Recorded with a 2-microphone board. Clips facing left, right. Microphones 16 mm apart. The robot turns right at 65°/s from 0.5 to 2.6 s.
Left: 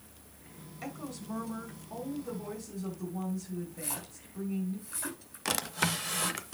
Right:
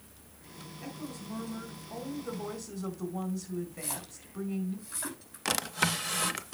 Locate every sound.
0.8 s a woman speaking: 100° left, 4 m; by 4.8 s 145° right, 4 m
3.8 s a splash: 10° right (ahead or behind), 5.5 m
5.5 s a drawer: centre (ahead or behind), 0.6 m